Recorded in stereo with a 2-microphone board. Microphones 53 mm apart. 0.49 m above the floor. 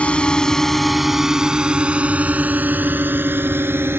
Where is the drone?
20° left (ahead or behind); by 4.0 s 45° right (ahead or behind).